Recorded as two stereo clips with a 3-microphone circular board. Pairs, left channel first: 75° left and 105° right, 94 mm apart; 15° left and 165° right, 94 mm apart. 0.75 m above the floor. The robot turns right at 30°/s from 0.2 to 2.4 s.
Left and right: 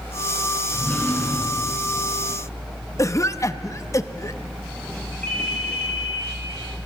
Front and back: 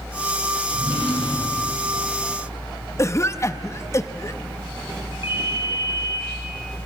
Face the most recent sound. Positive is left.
turn(degrees=5)